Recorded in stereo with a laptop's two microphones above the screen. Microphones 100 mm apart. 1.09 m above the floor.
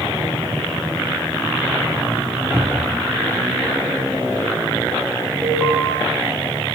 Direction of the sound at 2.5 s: 25° right (ahead or behind).